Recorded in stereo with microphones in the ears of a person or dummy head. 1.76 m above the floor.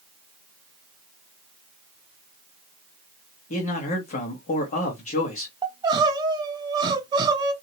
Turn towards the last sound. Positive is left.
turn(degrees=-20)  # may be behind; listen again after turning